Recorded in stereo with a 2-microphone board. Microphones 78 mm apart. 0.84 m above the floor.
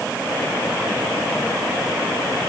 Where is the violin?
I don't hear a violin.